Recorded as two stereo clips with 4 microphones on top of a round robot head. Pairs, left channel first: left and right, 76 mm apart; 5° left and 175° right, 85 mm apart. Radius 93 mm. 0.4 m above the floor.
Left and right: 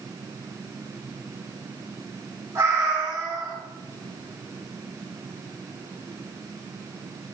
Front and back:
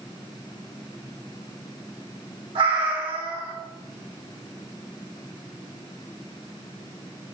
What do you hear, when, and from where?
2.5 s a cat meowing: 155° right, 3 m